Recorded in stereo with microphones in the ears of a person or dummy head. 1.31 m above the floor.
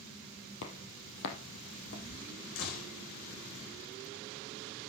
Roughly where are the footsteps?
Left.